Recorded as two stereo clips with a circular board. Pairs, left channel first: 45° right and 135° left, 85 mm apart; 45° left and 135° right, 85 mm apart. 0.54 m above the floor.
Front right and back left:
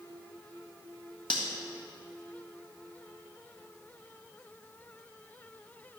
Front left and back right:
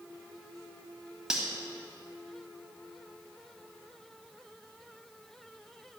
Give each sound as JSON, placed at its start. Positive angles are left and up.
{"t": 1.3, "sound": "cutlery clinking", "azimuth_deg": -50, "distance_m": 1.7}